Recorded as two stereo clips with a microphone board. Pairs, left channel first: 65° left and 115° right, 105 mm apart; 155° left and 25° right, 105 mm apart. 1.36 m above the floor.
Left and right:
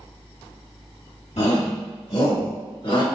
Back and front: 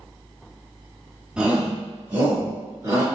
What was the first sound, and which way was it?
A shout, 60° left.